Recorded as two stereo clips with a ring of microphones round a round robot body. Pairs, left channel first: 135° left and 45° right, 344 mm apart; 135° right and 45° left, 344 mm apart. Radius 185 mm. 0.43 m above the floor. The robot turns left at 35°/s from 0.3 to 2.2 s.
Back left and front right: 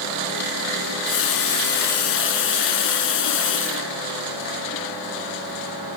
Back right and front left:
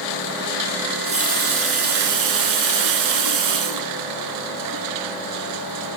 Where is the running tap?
125° left, 4.5 m; by 5.2 s 80° left, 4.5 m.